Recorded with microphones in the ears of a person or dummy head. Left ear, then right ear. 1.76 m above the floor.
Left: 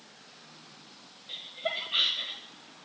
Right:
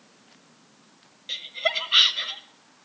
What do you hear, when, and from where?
1.3 s laughter: 70° right (ahead or behind), 1.2 m; by 2.4 s 50° right (ahead or behind), 1.4 m